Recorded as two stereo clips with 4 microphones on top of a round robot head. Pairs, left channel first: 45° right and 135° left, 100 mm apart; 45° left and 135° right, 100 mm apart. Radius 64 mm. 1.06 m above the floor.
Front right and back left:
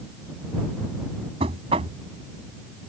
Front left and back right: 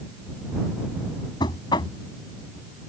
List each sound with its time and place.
1.4 s knocking: 95° left